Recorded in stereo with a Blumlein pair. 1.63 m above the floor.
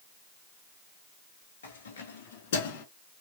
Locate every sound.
1.6 s keys jangling: 70° left, 1.8 m; by 2.9 s 55° left, 1.1 m